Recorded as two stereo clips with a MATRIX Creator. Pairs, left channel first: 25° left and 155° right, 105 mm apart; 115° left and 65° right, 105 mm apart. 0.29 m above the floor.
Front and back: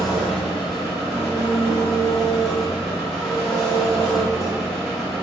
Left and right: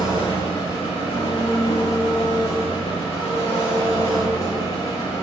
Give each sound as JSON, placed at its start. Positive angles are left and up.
{"t": 0.0, "sound": "an engine running", "azimuth_deg": 110, "distance_m": 0.9}